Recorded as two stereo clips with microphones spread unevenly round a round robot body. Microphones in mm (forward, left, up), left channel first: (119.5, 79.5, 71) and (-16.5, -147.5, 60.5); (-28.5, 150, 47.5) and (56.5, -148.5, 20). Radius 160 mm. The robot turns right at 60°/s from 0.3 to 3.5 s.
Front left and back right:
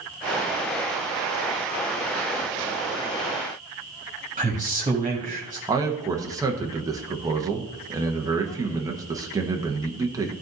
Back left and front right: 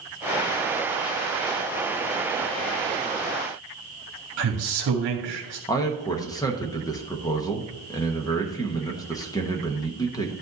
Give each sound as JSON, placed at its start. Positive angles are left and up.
{"t": 4.4, "sound": "a man speaking", "azimuth_deg": -50, "distance_m": 1.7}
{"t": 5.7, "sound": "a man speaking", "azimuth_deg": 180, "distance_m": 1.1}